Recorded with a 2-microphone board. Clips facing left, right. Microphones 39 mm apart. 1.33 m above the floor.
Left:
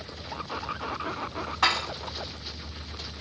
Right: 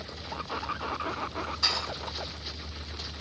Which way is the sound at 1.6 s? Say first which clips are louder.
Left 8 dB; 55° left (ahead or behind).